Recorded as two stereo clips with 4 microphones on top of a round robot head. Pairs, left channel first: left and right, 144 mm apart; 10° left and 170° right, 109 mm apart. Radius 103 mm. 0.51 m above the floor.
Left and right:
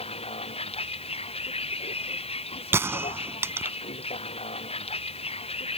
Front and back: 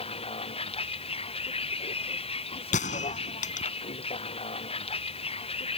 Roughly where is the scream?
I don't hear a scream.